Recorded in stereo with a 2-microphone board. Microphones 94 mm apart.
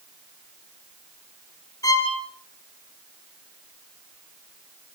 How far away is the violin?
About 3.5 m.